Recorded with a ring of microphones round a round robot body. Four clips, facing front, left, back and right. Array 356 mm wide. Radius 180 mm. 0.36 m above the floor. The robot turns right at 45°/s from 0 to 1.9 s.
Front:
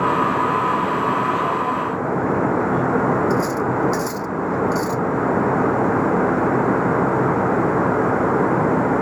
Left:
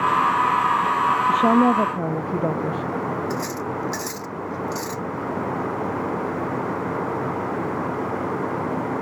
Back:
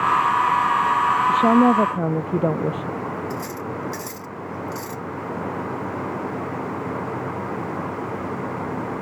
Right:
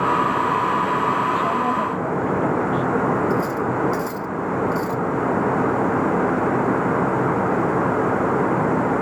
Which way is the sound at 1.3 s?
135° left.